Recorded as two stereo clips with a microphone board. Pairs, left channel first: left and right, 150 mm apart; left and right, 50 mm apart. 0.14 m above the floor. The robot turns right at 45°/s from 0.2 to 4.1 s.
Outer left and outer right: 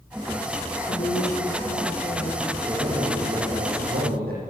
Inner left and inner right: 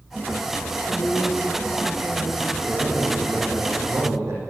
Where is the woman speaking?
75° left, 5.5 m; by 2.5 s 150° left, 5.5 m.